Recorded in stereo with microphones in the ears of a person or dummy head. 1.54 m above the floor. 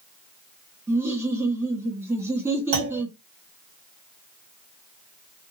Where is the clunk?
60° right (ahead or behind), 1.5 m.